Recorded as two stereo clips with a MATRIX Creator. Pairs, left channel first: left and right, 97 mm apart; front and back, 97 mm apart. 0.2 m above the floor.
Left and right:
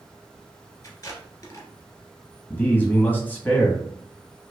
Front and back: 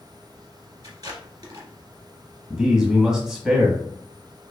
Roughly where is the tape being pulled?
Behind left.